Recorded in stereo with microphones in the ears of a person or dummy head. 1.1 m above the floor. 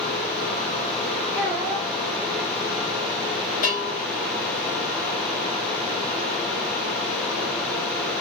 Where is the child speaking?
15° right (ahead or behind), 1.3 m.